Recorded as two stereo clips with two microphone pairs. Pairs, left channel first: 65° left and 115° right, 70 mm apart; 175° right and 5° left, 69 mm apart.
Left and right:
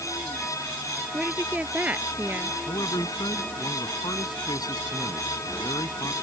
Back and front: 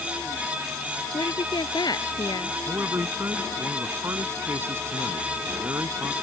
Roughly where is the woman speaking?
Behind.